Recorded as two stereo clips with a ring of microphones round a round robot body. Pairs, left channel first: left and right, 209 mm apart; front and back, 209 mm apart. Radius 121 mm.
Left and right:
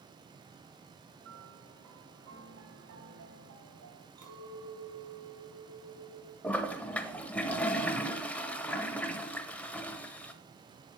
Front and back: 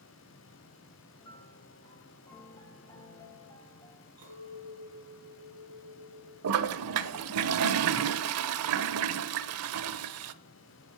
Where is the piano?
75° right, 1.7 m.